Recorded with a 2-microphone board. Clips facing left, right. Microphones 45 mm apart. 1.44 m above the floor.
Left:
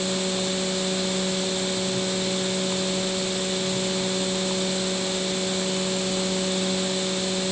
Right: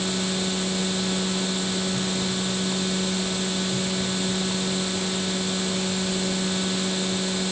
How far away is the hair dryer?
No hair dryer in this recording.